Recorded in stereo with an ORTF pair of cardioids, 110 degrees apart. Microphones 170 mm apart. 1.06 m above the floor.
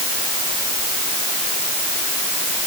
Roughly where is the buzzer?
I don't hear a buzzer.